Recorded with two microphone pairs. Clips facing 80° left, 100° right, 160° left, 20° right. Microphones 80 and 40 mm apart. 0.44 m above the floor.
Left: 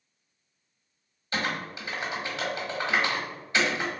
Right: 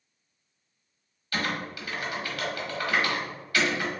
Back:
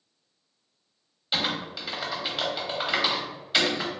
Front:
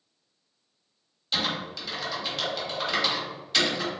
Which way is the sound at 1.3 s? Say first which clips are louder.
Even, back 1 dB; 115° left.